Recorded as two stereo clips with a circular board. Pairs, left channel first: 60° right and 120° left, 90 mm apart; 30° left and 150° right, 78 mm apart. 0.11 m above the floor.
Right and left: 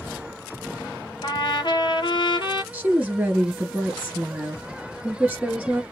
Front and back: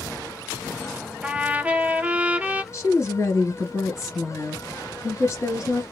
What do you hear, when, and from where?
1.2 s a trumpet: 80° right, 0.5 m
2.7 s a woman speaking: 60° left, 1.9 m